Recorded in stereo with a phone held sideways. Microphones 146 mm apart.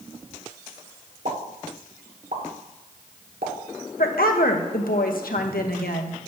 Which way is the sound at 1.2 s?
80° right.